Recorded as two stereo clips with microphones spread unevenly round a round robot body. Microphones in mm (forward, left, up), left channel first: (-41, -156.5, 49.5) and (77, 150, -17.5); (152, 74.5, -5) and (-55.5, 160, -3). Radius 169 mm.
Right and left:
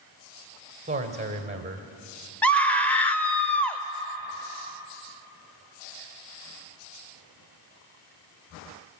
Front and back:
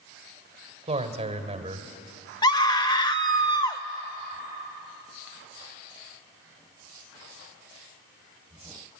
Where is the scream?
Straight ahead, 1.0 m.